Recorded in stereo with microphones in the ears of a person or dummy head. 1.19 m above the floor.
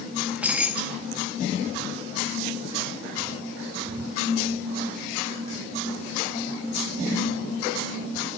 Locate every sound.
0.2 s keys jangling: 5° right (ahead or behind), 0.9 m